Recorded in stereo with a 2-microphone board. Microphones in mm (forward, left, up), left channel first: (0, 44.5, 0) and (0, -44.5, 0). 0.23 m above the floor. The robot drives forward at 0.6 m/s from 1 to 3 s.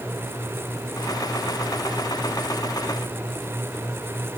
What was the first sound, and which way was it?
Only background noise.